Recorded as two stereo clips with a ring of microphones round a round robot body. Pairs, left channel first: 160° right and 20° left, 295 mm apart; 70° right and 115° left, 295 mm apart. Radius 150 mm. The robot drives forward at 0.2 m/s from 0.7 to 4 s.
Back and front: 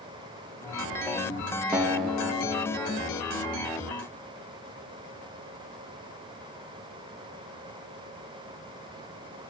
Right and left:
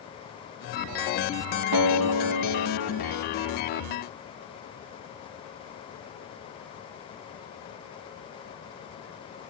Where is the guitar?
110° left, 0.6 m; by 3.2 s 130° left, 0.8 m.